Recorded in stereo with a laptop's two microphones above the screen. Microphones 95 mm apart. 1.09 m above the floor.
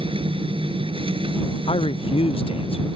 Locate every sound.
0.0 s a machine running: 70° right (ahead or behind)
1.7 s a man speaking: 80° left